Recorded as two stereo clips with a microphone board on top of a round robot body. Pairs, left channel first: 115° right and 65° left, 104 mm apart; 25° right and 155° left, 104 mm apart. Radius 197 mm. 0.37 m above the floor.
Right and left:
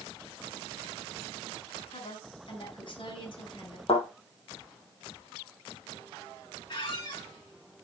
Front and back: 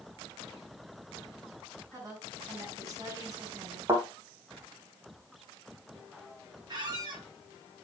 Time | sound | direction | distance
1.9 | a woman speaking | 145° right | 6 m
3.9 | a thud | 140° right | 4 m
6.7 | a squeak | 155° right | 3.5 m